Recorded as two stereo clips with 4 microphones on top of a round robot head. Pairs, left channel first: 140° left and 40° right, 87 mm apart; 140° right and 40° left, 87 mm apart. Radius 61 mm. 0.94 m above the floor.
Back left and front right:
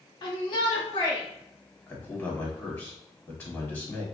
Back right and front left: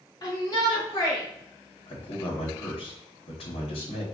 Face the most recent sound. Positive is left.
turn(degrees=-155)